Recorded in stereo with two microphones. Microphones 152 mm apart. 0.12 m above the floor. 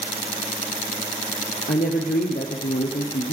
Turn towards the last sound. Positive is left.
turn(degrees=65)  # may be behind; listen again after turning